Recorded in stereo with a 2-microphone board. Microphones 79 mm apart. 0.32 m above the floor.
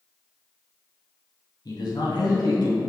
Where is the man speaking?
60° left (ahead or behind), 2.0 m; by 2.8 s 70° left (ahead or behind), 3.5 m.